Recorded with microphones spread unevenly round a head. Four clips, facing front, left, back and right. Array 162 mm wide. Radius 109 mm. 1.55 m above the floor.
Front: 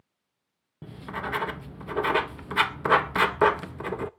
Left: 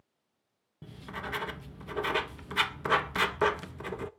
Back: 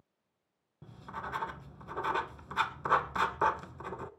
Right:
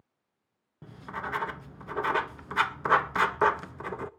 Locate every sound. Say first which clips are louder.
0.8 s writing: right 3 dB, front 8 dB; 10° left, 0.5 m